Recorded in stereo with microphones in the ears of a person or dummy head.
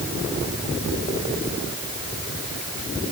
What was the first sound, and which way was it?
Only background noise.